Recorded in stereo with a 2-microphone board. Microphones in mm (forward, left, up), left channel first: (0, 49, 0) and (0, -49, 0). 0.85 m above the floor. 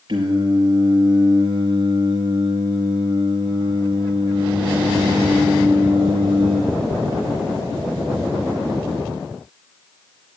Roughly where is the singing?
Right.